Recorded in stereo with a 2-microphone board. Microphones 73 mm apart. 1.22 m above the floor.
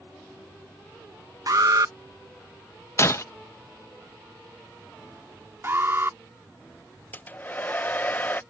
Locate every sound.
1.5 s an alarm: 55° right (ahead or behind)
3.0 s breaking glass: 35° left (ahead or behind)
5.6 s an alarm: 35° right (ahead or behind)
7.1 s a hair dryer: 25° left (ahead or behind)